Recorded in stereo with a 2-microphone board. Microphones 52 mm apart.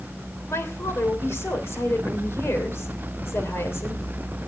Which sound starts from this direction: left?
A woman speaking, at 0.5 s.